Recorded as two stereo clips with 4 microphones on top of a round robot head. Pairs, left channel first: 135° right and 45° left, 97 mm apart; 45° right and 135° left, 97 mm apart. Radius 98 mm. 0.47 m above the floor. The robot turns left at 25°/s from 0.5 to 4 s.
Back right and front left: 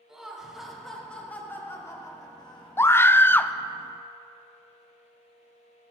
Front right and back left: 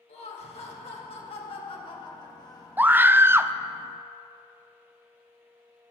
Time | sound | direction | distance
0.1 | laughter | 45° right | 3.5 m
2.8 | a scream | 170° right | 0.7 m